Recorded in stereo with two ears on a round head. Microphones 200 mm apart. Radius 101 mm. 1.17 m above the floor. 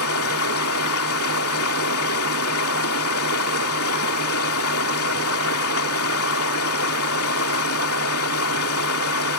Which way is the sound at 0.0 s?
75° left (ahead or behind).